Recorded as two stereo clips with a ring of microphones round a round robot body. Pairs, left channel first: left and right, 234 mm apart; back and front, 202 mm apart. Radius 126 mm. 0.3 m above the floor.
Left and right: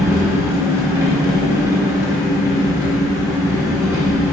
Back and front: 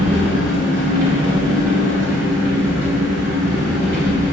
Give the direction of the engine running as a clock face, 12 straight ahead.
12 o'clock.